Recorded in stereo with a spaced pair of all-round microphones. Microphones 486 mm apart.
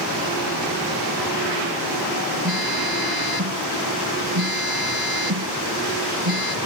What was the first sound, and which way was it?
A phone buzzing, 50° right (ahead or behind).